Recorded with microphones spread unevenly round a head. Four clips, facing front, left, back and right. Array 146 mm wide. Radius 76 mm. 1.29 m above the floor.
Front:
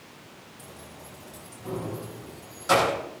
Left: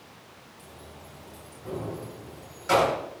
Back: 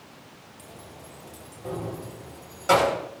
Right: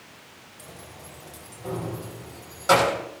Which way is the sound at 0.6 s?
125° right.